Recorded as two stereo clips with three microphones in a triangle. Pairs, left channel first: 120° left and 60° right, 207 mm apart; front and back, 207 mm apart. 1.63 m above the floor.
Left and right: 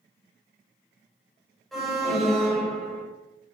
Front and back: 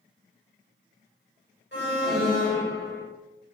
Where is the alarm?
30° left, 7 m.